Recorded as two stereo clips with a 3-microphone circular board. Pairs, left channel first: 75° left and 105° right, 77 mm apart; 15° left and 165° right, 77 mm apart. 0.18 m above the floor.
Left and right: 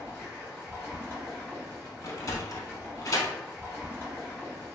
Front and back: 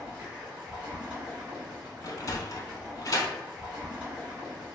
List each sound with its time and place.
0.0 s running water: 130° left, 1.5 m
2.0 s a sliding door: 45° left, 0.5 m